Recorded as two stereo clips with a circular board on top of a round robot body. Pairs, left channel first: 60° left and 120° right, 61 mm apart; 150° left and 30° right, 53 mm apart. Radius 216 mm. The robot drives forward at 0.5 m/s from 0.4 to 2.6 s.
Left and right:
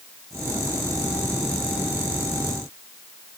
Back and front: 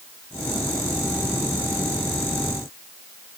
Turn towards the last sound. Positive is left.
No sound to turn to.